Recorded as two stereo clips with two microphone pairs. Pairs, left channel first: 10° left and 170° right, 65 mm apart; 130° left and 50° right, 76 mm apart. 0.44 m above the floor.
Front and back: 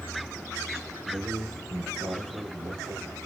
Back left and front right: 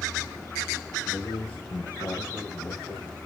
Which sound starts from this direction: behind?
A man speaking, at 1.1 s.